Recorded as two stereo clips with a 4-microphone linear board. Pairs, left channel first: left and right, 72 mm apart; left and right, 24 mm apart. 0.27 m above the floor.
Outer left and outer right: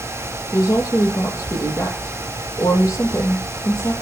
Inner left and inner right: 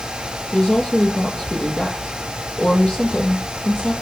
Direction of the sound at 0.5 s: 40° left (ahead or behind).